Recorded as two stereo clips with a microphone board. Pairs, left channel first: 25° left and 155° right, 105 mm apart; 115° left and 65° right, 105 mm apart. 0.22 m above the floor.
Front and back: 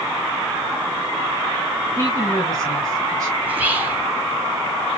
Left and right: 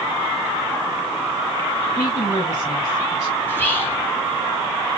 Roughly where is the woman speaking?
Behind.